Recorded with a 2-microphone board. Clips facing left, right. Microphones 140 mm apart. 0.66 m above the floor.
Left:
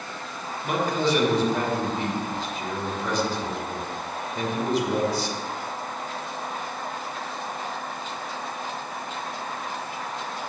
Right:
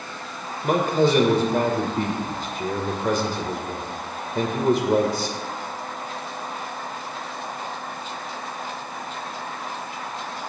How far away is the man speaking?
About 2.5 m.